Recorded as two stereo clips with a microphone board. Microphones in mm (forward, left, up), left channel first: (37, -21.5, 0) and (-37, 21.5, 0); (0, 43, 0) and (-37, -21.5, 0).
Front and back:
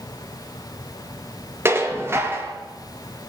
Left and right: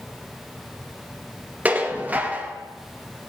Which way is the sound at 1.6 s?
175° right.